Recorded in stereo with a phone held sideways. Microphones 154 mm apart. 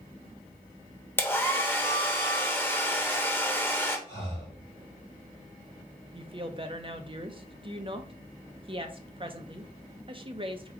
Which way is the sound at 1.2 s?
15° left (ahead or behind).